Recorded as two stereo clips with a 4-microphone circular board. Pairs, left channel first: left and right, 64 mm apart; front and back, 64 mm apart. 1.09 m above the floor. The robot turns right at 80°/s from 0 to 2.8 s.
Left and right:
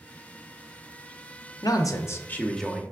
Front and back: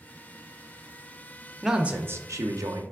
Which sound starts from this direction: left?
A man speaking, at 1.6 s.